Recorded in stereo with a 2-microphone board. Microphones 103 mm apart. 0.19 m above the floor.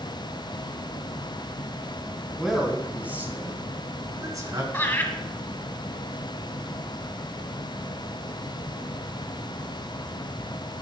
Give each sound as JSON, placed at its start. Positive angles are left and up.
{"t": 2.3, "sound": "a man speaking", "side_deg": 0, "distance_m": 1.9}
{"t": 4.7, "sound": "laughter", "side_deg": 20, "distance_m": 1.6}